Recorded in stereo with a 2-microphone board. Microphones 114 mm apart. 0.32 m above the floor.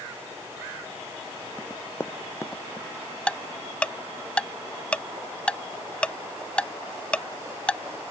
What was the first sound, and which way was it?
Running footsteps, 15° left (ahead or behind).